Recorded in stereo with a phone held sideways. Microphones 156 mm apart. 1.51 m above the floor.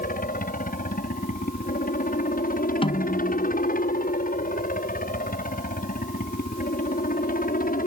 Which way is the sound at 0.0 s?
65° left (ahead or behind).